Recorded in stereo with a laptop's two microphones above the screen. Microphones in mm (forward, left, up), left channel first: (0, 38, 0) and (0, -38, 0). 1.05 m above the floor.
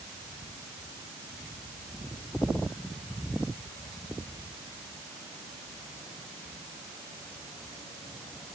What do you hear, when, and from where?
Only background noise.